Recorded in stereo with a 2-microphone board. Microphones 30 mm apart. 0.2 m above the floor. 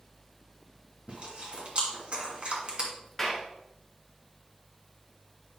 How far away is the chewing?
About 2.5 m.